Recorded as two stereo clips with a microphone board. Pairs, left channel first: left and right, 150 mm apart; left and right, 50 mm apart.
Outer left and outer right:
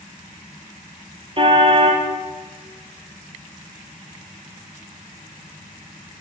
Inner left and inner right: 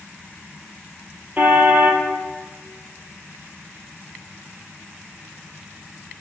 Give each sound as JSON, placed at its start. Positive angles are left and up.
{"t": 1.4, "sound": "a car horn", "side_deg": -35, "distance_m": 2.0}